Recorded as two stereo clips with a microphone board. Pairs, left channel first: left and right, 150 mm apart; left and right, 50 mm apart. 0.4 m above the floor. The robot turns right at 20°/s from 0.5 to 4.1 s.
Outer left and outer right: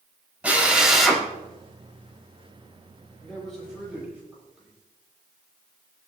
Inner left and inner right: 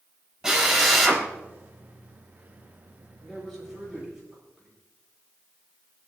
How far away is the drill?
About 4 m.